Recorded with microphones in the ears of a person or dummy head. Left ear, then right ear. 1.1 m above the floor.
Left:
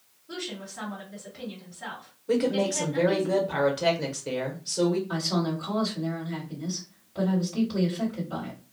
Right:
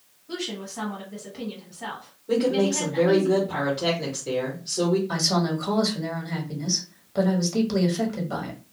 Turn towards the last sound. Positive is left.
turn(degrees=-80)